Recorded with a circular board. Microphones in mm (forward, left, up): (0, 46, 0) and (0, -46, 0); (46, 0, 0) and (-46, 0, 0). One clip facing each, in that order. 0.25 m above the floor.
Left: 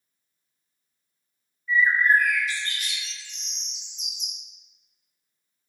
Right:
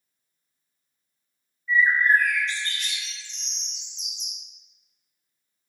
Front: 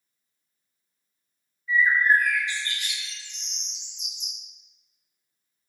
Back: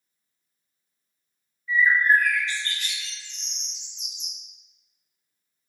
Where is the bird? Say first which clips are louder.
Even, back 1 dB; 25° left, 0.8 m.